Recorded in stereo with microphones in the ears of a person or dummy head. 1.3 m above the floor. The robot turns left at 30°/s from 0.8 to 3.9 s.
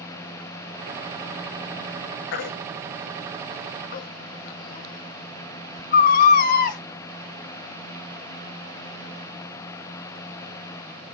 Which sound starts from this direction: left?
A baby crying, at 2.3 s.